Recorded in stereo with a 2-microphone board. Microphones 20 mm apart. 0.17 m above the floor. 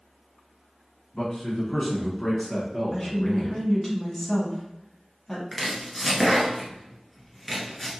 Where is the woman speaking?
25° left (ahead or behind), 1.4 m.